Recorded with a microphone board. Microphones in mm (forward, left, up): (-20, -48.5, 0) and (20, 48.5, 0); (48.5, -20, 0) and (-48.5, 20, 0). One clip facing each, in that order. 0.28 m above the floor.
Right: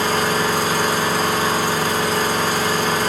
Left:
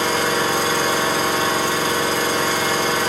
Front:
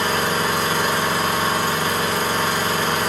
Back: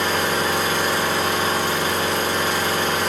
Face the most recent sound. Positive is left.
turn(degrees=-75)